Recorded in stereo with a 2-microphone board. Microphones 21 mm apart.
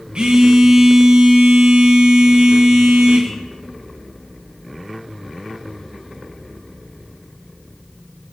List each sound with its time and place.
0.1 s a phone buzzing: 55° right (ahead or behind), 3 m